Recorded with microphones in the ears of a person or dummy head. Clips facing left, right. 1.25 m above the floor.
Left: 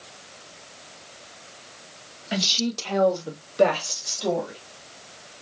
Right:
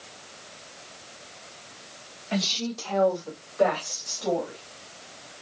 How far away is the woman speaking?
About 0.8 m.